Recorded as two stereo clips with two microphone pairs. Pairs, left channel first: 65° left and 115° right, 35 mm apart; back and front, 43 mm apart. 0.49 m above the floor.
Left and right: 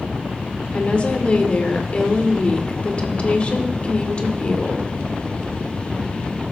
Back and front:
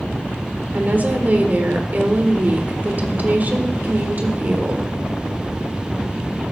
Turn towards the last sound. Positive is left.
turn(degrees=25)